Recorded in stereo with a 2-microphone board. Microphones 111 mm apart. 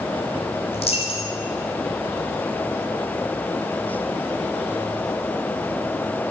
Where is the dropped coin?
65° left (ahead or behind), 2.5 m.